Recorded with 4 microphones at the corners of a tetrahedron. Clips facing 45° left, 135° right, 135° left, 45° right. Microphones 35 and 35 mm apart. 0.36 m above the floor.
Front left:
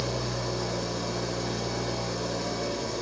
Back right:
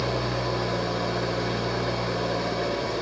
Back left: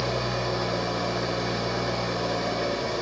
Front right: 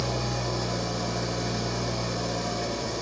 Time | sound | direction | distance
0.0 | an engine running | 170° right | 1.4 m